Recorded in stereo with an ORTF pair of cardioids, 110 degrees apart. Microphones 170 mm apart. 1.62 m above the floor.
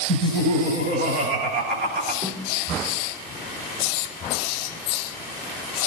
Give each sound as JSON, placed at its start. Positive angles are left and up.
{"t": 0.1, "sound": "laughter", "azimuth_deg": -70, "distance_m": 9.0}
{"t": 2.2, "sound": "a snare drum", "azimuth_deg": -15, "distance_m": 4.5}